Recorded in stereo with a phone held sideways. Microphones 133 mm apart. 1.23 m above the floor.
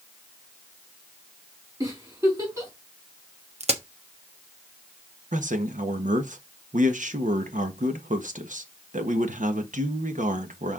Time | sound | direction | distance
1.8 | a giggle | 30° right (ahead or behind) | 4.5 m
3.6 | a crack | 50° right (ahead or behind) | 1.1 m
5.3 | a man speaking | 75° right (ahead or behind) | 1.2 m